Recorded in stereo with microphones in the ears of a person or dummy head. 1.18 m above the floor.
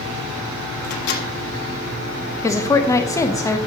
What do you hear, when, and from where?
0.8 s a microwave: 60° left (ahead or behind), 1.2 m
2.4 s a woman speaking: 15° left (ahead or behind), 0.8 m